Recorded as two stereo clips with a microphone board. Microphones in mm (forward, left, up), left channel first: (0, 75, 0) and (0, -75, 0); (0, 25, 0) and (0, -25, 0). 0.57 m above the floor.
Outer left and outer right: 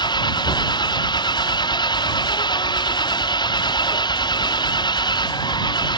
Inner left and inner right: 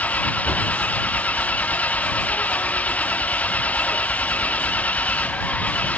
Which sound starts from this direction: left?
An engine running, at 0.0 s.